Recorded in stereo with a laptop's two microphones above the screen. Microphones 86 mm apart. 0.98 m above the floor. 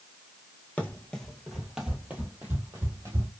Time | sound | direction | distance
0.8 | running footsteps | 20° left (ahead or behind) | 1.0 m